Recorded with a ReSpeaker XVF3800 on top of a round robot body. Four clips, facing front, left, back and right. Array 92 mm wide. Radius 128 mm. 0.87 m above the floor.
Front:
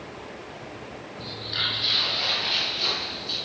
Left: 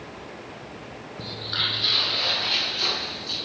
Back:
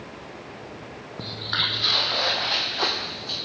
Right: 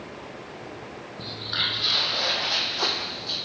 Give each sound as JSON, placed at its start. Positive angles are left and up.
{"t": 1.2, "sound": "footsteps", "azimuth_deg": 175, "distance_m": 1.5}